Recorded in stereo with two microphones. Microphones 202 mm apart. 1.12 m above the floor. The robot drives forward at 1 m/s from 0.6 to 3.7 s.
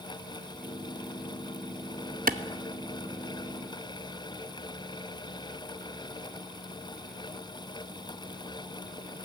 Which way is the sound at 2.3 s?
45° right (ahead or behind).